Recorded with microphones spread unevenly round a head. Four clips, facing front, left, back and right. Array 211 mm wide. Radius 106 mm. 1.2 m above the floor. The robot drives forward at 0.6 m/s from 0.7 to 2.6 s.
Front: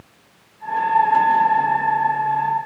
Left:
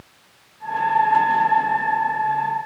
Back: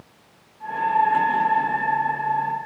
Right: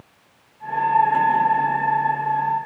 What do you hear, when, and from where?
Only background noise.